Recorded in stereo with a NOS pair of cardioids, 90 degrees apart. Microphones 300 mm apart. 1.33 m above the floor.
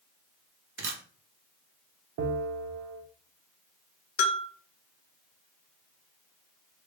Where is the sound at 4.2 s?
45° left, 0.6 m.